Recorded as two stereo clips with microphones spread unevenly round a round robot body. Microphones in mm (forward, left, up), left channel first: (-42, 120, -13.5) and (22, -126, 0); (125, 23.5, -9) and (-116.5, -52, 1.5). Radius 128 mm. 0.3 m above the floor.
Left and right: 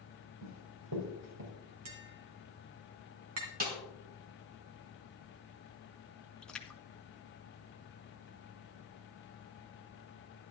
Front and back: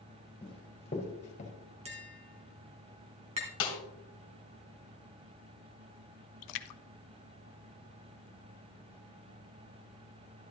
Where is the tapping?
95° right, 2.5 m.